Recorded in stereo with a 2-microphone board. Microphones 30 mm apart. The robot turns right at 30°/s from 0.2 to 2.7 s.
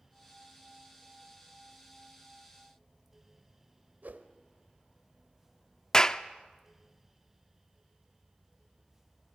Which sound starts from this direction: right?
A whoosh, at 4.0 s.